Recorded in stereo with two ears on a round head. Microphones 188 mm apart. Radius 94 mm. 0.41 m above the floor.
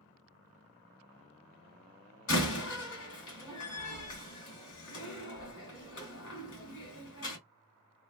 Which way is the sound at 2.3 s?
65° left (ahead or behind).